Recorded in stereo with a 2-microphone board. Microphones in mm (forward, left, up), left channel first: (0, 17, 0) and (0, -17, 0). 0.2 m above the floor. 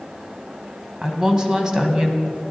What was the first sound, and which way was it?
A woman speaking, 20° right (ahead or behind).